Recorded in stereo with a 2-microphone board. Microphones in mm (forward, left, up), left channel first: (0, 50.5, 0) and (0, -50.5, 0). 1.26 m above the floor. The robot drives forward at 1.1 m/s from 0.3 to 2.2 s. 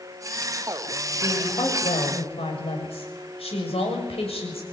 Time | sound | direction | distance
1.2 | a woman speaking | 60° left (ahead or behind) | 7 m